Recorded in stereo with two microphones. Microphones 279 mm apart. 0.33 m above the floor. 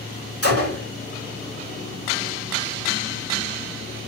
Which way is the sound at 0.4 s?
60° left (ahead or behind).